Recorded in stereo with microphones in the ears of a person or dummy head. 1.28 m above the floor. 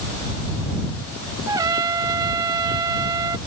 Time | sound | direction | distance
1.5 | a trumpet | 20° right (ahead or behind) | ?